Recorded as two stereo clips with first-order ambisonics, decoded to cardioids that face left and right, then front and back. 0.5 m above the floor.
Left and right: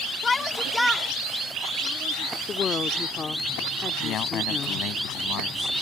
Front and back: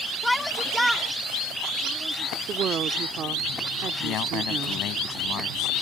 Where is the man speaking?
45° left.